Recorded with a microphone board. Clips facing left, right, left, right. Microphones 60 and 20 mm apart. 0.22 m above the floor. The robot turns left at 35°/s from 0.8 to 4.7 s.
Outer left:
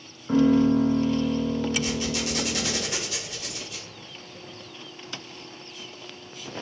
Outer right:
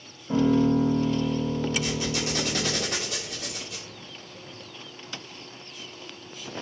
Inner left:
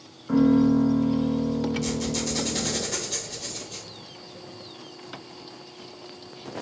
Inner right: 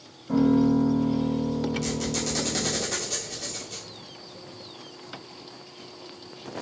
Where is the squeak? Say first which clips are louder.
Outer left 1 dB, inner left 1 dB; 10° right, 1.6 m; by 3.9 s 85° right, 1.6 m.